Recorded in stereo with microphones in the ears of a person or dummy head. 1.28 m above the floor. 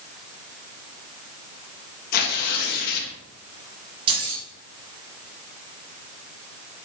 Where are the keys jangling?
30° right (ahead or behind), 3 m.